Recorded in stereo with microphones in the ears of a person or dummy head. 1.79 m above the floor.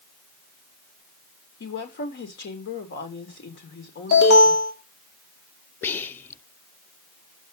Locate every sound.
1.6 s a woman speaking: 50° left (ahead or behind), 3.5 m
4.1 s an alarm: 75° left (ahead or behind), 4 m
5.8 s whispering: 20° left (ahead or behind), 0.7 m